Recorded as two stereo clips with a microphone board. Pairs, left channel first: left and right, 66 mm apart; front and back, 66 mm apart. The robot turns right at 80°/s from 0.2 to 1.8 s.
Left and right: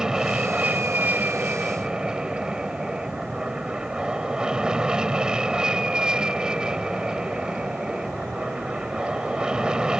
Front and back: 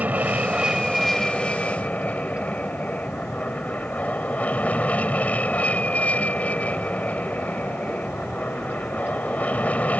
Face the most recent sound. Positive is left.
turn(degrees=-30)